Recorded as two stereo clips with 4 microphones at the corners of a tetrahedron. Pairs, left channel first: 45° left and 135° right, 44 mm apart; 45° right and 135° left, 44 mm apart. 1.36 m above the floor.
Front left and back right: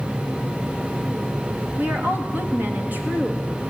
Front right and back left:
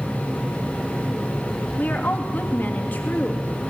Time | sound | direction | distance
1.8 | a woman speaking | 90° right | 2.5 m